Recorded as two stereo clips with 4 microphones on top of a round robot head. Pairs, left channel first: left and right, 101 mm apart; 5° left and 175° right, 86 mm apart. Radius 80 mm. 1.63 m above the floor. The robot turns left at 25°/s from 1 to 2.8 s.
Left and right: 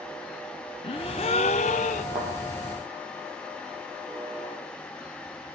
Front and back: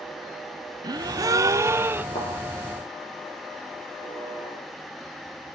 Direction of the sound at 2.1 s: 45° right.